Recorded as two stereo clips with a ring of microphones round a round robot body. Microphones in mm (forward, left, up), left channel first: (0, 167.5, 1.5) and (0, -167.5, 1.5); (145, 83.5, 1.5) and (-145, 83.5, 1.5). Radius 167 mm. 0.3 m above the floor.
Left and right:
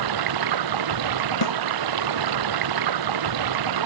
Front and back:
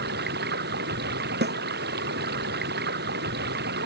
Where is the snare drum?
125° left.